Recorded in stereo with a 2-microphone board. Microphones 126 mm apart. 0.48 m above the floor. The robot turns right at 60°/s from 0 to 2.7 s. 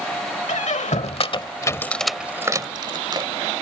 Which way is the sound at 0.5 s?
75° left (ahead or behind).